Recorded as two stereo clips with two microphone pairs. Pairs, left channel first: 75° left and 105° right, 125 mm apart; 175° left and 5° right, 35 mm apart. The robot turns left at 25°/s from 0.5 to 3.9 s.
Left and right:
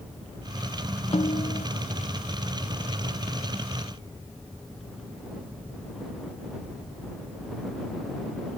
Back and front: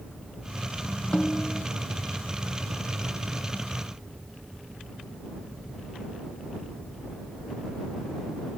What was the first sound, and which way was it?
A snare drum, 115° left.